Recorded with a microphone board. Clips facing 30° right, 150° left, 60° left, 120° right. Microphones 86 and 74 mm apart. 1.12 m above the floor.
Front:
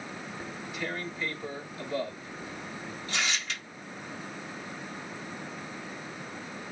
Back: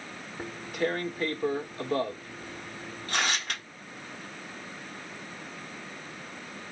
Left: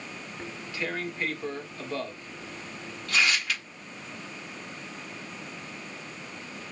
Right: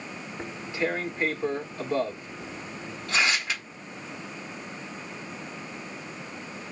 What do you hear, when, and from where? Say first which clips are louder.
0.4 s tearing paper: back 8 dB, right 6 dB; 175° left, 0.9 m